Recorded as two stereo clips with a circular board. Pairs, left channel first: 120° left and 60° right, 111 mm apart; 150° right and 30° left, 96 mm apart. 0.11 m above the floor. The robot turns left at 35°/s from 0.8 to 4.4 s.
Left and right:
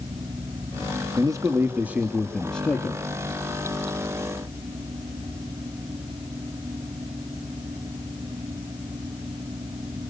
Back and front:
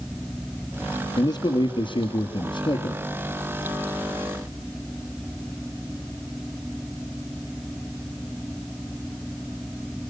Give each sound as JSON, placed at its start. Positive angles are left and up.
{"t": 1.2, "sound": "a man speaking", "azimuth_deg": -110, "distance_m": 2.5}